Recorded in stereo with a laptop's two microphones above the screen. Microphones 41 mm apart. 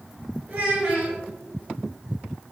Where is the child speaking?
50° right (ahead or behind), 1.3 m.